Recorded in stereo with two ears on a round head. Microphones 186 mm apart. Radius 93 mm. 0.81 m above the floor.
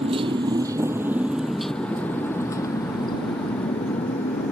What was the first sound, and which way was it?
A motorcycle, 30° right (ahead or behind).